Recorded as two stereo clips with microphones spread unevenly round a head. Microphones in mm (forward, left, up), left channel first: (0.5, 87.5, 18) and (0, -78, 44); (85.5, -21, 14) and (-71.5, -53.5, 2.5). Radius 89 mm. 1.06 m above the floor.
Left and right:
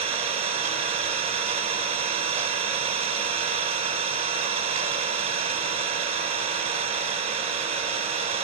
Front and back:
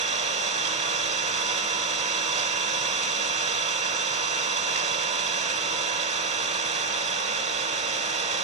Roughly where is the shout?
I don't hear a shout.